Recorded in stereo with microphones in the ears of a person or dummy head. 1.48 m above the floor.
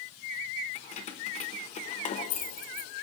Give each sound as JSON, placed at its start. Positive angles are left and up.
{"t": 0.8, "sound": "keys jangling", "side_deg": 35, "distance_m": 0.9}